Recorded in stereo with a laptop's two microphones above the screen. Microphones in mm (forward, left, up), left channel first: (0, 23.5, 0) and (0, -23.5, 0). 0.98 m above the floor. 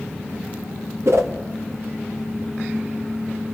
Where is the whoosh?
75° right (ahead or behind), 1.6 m.